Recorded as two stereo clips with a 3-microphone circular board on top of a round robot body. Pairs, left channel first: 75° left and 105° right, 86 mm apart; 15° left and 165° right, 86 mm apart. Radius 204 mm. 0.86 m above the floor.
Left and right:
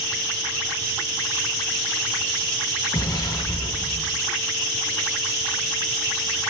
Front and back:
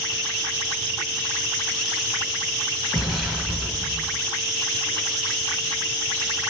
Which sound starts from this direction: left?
An explosion, at 2.9 s.